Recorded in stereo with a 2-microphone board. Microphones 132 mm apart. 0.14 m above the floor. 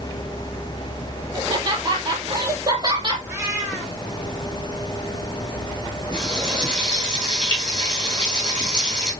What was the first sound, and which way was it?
Laughter, 35° right (ahead or behind).